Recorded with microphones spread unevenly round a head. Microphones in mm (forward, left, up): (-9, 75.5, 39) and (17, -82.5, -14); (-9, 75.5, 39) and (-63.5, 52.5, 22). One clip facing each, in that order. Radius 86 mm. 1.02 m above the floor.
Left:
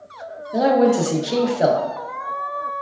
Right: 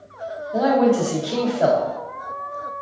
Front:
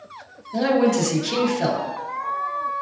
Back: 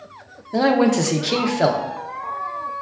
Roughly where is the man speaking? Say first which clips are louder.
Left 1 dB, back 2 dB; behind.